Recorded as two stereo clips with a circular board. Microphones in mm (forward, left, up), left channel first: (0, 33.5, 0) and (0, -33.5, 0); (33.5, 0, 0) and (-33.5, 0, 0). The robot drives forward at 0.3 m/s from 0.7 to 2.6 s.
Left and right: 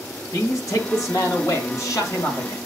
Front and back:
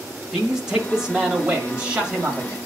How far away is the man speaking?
About 1.7 m.